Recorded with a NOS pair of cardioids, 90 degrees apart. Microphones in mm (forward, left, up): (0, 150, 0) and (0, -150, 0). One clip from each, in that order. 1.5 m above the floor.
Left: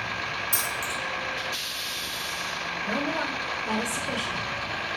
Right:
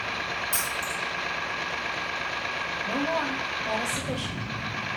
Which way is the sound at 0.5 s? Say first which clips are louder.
Even; 20° left.